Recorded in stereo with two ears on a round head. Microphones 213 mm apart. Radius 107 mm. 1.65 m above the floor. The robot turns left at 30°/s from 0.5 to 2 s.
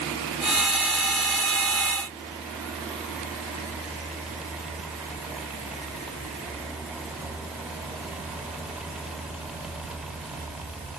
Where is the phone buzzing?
I don't hear a phone buzzing.